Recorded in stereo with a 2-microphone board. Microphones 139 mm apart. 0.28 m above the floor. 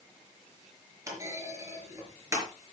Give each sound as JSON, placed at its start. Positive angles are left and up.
{"t": 1.1, "sound": "a clunk", "side_deg": -25, "distance_m": 4.0}